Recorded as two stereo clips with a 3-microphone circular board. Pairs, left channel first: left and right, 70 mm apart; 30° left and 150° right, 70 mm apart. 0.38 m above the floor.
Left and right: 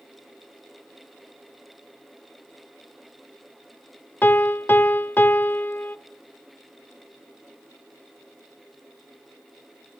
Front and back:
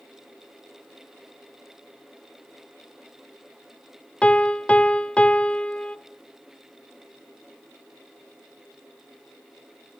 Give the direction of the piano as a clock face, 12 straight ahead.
9 o'clock.